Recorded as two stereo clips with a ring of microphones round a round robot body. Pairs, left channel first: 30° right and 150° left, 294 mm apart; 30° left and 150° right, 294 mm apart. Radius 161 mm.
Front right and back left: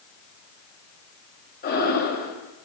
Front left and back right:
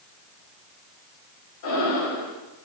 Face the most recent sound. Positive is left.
turn(degrees=25)